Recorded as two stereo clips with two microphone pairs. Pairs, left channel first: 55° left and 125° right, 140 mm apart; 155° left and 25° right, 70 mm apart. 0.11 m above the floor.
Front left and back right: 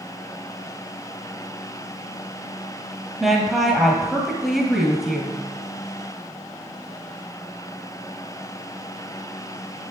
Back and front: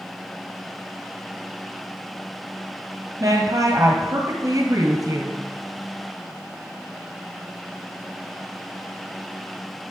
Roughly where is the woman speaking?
Ahead right.